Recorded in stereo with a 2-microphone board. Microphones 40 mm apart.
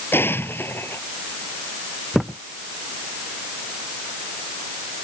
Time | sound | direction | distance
0.1 | an explosion | 75° left (ahead or behind) | ?
2.1 | a thud | centre (ahead or behind) | ?